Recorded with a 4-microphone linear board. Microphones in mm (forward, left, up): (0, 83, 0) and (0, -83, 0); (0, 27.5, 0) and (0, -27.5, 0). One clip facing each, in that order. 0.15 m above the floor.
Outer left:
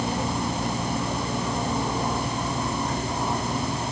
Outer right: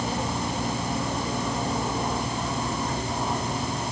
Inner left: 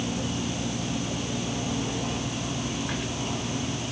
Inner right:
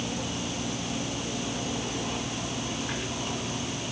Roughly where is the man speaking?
I don't hear a man speaking.